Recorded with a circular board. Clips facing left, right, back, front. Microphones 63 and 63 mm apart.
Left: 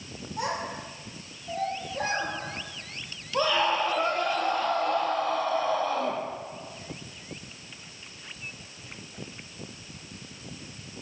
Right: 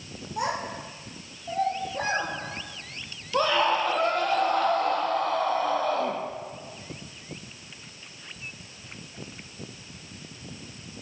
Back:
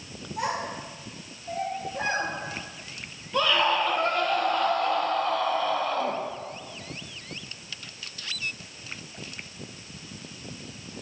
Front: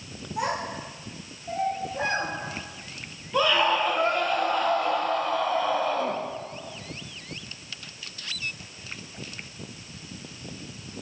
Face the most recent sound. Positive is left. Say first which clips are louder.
# right 2 dB, front 1 dB
turn(degrees=-80)